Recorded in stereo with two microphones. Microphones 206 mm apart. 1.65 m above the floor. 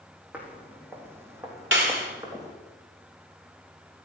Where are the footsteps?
10° right (ahead or behind), 3 m; by 2.5 s 20° right (ahead or behind), 4 m.